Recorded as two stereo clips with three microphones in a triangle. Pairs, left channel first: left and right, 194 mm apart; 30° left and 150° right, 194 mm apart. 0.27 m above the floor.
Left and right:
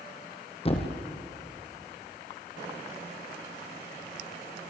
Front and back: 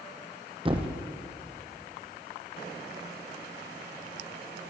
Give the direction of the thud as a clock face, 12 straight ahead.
7 o'clock.